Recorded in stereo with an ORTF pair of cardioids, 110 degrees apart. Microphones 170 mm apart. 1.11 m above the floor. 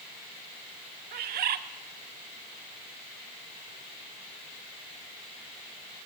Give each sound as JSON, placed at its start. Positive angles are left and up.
{"t": 1.1, "sound": "a bird", "azimuth_deg": -65, "distance_m": 1.8}